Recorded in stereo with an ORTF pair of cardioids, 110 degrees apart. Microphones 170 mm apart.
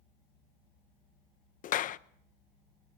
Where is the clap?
55° left, 0.8 m.